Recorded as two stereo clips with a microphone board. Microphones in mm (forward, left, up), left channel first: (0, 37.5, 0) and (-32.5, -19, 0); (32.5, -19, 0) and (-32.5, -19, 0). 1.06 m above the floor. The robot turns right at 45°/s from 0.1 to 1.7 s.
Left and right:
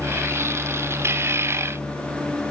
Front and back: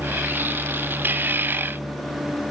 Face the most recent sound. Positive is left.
No sound to turn to.